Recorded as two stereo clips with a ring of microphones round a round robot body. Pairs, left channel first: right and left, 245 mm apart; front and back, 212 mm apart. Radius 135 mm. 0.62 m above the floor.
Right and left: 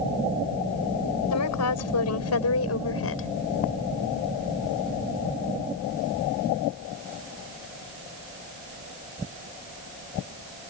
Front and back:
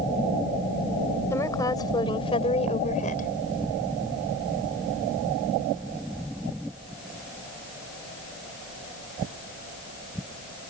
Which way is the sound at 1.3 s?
80° right.